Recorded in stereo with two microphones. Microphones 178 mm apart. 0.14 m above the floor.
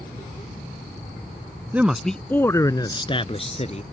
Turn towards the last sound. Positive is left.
turn(degrees=40)  # may be behind; listen again after turning